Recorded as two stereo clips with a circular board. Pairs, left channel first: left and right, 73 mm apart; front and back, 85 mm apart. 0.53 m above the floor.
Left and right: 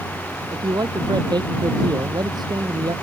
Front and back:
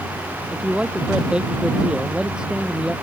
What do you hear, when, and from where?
0.5 s a man speaking: 105° right; by 2.9 s 100° right